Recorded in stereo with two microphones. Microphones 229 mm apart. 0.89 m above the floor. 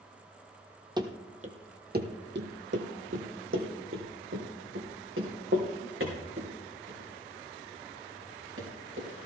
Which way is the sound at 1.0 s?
20° right (ahead or behind).